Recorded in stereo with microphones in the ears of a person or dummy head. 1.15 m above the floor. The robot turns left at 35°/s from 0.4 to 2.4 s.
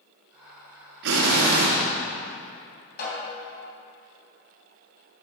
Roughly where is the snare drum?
Left.